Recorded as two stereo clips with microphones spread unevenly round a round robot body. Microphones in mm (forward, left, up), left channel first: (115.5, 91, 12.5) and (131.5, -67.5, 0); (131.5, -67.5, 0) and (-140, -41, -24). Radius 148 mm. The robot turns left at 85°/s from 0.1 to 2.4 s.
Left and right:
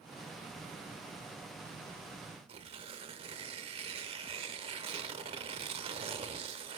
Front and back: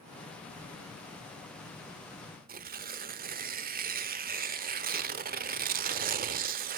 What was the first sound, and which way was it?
Tearing paper, 135° right.